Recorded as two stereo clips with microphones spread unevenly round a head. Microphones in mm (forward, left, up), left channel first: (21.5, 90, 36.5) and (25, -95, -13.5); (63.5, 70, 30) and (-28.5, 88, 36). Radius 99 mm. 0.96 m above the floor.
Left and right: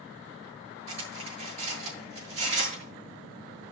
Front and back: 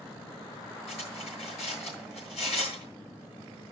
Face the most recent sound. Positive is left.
turn(degrees=-100)